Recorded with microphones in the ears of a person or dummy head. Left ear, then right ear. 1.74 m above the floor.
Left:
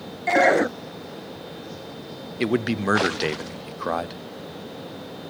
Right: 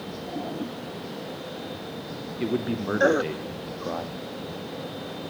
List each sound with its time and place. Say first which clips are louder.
2.4 s a man speaking: left 5 dB; 60° left (ahead or behind), 0.5 m